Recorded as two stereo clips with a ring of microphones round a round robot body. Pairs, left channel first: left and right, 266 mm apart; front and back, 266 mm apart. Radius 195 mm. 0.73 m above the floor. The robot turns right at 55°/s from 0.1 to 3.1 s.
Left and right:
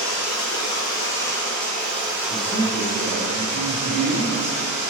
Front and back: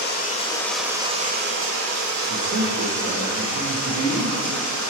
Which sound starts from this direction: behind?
A man speaking, at 2.3 s.